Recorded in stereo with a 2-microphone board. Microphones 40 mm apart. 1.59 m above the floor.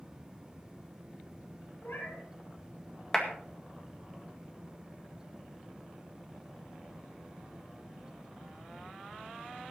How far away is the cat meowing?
About 8 m.